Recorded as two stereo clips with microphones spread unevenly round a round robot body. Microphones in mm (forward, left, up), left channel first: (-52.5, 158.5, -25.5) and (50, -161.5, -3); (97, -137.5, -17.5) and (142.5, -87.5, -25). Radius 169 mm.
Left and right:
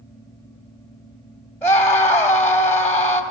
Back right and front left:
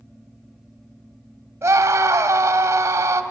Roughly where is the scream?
Ahead left.